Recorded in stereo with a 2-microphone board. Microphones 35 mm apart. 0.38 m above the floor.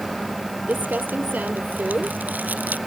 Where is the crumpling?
60° right (ahead or behind).